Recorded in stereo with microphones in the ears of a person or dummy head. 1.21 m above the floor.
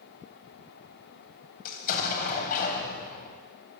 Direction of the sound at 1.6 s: 55° left (ahead or behind).